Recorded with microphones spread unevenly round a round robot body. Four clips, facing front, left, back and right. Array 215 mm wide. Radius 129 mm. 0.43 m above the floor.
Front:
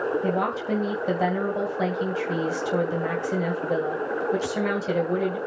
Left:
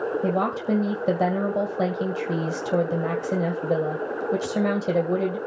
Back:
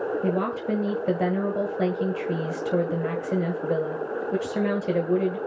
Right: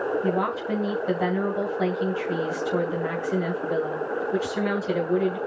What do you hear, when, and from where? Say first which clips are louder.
0.2 s a woman speaking: left 1 dB, even; 135° left, 2.5 m